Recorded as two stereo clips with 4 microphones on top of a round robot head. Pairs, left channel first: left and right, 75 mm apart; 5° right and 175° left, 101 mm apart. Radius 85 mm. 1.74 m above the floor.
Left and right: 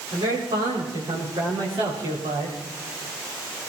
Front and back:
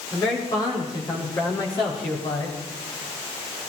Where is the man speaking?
65° right, 6 m; by 2.5 s 60° right, 5 m.